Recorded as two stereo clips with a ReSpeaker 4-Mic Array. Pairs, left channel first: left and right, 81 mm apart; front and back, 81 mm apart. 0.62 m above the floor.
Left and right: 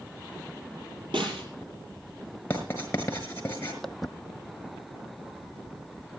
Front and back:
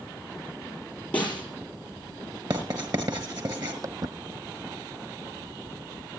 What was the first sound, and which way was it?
A snare drum, 75° right.